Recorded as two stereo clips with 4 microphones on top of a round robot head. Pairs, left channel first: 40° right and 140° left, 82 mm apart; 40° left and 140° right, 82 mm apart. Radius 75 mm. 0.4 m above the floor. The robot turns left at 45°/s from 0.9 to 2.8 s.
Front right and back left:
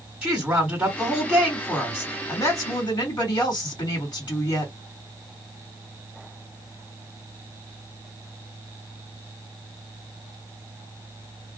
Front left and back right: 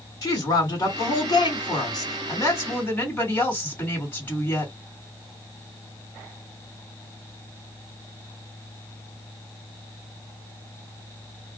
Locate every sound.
0.2 s a woman speaking: 65° left, 1.9 m; by 4.7 s 20° right, 1.9 m